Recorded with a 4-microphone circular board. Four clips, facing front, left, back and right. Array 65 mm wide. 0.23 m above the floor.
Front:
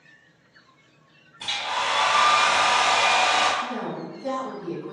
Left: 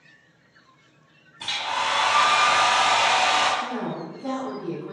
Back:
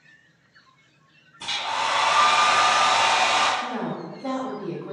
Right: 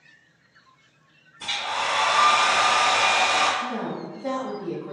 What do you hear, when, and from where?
1.4 s a hair dryer: 45° left, 1.8 m
3.6 s a woman speaking: 165° left, 1.0 m